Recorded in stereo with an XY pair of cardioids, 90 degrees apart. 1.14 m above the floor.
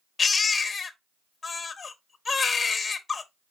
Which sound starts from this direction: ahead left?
A baby crying, at 0.2 s.